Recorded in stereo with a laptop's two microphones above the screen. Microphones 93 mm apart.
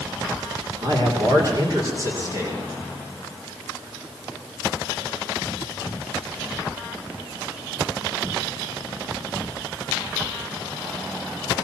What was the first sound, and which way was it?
A man speaking, 50° right (ahead or behind).